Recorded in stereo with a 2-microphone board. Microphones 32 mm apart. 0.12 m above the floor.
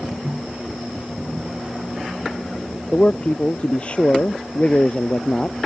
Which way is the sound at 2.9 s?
35° left (ahead or behind).